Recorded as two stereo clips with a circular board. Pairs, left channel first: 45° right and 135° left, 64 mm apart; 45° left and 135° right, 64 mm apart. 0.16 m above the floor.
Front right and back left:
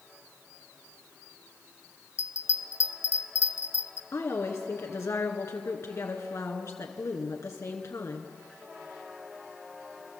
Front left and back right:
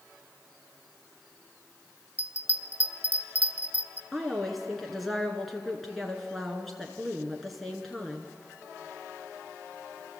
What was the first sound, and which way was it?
A bell, 70° right.